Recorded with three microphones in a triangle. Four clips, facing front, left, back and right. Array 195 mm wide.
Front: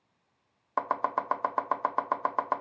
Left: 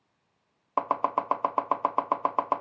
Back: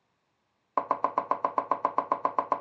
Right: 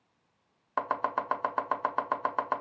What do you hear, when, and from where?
0.8 s chopping: 110° left, 0.5 m